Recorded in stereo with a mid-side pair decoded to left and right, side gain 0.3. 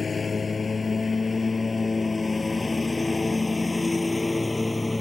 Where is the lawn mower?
50° left; by 5.0 s 20° left.